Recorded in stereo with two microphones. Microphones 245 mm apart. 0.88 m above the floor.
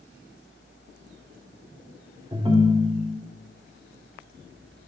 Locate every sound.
2.3 s a ringtone: 20° right (ahead or behind), 0.6 m